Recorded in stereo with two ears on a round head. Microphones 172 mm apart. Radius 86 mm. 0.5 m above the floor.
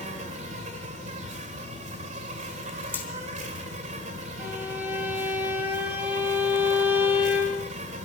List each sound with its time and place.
0.0 s an insect: 40° right (ahead or behind), 2 m
2.9 s hammering: 10° left (ahead or behind), 3.5 m
4.4 s a violin: 10° right (ahead or behind), 3.5 m